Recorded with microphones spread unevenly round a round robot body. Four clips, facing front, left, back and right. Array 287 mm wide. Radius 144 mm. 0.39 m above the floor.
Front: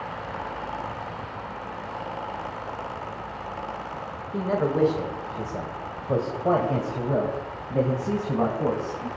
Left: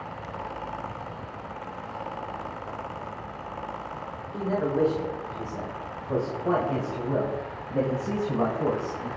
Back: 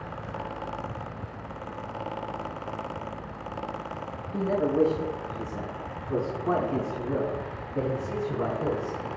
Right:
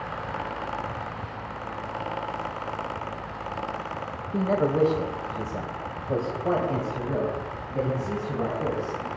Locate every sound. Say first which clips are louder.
4.3 s a man speaking: right 3 dB, even; 65° right, 2 m; by 9.1 s 20° left, 4 m